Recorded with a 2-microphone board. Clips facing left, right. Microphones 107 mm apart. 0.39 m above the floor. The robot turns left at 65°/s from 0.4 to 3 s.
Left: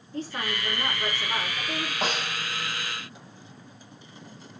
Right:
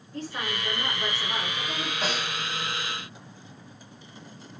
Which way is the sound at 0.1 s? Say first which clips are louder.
Left 1 dB; 120° left.